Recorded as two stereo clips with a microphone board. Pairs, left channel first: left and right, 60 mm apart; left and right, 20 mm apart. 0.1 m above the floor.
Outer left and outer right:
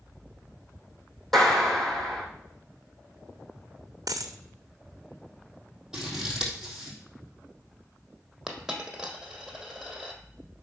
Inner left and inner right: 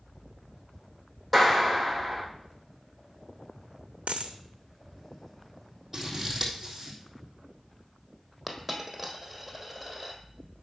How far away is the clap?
About 3.5 m.